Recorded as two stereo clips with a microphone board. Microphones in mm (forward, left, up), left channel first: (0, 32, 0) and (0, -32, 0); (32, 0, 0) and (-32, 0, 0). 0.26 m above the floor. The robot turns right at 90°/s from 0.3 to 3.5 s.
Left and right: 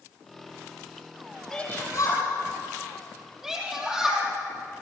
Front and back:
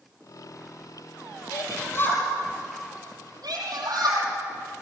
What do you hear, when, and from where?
1.5 s a shout: 10° left, 6.5 m; by 4.3 s 170° right, 6.5 m